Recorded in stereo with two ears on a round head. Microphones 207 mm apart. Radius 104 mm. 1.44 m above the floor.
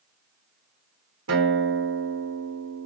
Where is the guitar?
60° right (ahead or behind), 4.5 m.